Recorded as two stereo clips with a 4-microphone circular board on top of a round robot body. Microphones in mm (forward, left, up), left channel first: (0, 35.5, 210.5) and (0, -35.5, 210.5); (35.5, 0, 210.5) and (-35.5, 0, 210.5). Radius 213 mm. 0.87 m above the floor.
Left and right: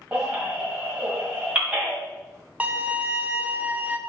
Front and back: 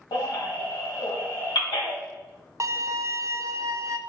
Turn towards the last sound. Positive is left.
turn(degrees=-150)